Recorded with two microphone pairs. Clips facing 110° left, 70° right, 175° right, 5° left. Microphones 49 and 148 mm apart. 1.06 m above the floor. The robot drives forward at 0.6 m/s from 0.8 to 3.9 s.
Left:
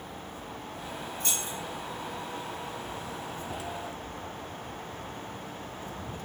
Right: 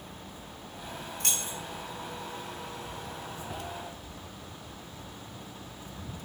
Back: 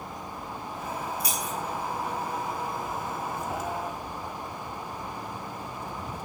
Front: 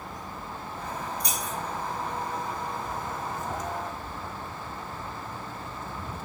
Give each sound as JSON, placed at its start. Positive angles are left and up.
{"t": 1.2, "sound": "keys jangling", "azimuth_deg": -90, "distance_m": 0.7}